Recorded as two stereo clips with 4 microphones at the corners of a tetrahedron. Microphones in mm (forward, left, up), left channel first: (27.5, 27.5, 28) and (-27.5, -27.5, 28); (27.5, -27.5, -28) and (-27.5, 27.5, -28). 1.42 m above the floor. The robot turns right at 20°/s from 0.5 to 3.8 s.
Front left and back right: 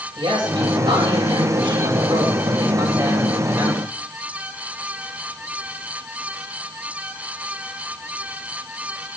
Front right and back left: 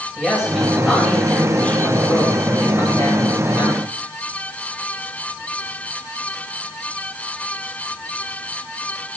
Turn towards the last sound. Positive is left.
turn(degrees=-80)